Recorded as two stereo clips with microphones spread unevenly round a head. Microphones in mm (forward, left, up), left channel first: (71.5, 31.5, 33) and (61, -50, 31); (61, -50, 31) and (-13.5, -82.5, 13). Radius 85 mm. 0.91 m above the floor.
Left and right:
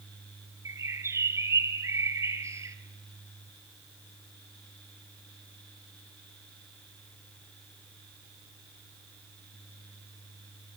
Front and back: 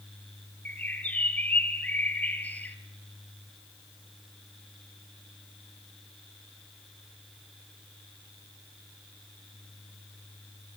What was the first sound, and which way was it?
A bird, 45° right.